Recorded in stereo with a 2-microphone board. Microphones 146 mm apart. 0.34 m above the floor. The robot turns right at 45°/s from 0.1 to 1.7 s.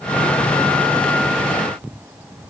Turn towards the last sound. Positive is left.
No sound to turn to.